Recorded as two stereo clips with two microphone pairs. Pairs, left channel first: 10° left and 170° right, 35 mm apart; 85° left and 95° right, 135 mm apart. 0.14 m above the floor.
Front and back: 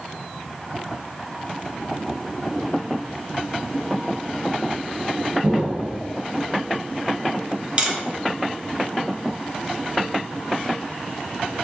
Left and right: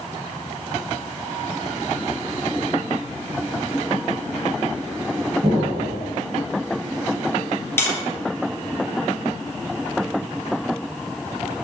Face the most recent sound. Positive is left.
turn(degrees=150)